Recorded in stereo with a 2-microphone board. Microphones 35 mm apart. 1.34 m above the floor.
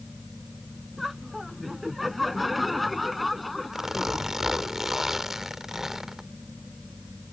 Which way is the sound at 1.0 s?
5° right (ahead or behind).